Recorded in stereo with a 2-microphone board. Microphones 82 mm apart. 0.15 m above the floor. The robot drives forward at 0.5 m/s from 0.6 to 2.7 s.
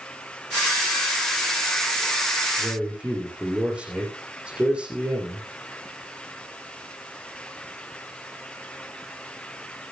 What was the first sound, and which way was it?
A man speaking, 10° right (ahead or behind).